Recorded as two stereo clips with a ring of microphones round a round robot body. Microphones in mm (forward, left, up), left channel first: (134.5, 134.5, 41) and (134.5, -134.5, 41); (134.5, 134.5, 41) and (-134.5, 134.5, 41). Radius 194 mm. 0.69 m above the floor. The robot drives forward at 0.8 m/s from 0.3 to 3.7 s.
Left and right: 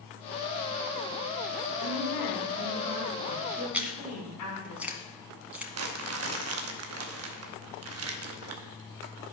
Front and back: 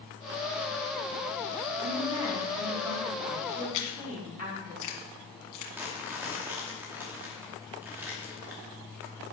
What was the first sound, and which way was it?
A woman speaking, 100° left.